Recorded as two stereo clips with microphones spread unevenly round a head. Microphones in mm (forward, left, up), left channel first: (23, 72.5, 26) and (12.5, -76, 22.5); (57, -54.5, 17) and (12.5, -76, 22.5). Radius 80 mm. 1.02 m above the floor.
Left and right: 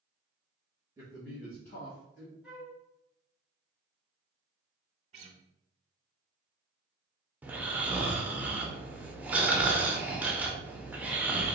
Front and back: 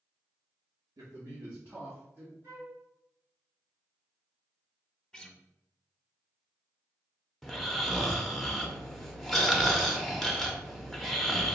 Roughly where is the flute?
Behind.